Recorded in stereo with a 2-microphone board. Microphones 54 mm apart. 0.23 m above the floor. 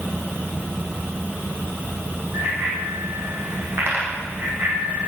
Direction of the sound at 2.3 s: 50° right (ahead or behind).